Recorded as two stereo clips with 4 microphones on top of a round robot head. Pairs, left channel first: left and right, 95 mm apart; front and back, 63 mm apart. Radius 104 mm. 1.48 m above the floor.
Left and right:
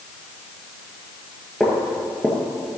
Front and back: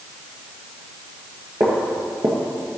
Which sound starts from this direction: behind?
Footsteps, at 1.6 s.